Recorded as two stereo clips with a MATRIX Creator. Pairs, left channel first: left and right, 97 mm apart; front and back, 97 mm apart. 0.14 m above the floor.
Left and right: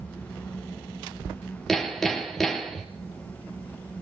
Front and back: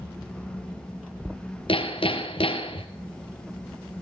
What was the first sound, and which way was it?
Hammering, 5° left.